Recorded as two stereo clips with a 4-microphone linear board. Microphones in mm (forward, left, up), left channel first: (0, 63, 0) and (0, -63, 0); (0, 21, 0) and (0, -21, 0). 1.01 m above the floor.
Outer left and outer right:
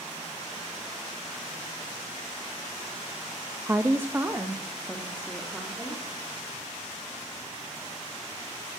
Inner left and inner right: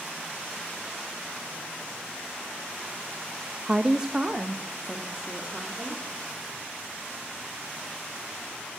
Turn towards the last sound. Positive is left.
turn(degrees=-10)  # may be behind; listen again after turning